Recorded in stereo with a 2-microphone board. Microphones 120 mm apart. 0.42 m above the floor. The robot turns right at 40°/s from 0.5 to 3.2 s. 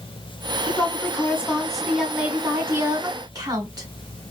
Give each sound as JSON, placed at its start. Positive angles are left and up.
{"t": 0.7, "sound": "a woman speaking", "azimuth_deg": 130, "distance_m": 1.3}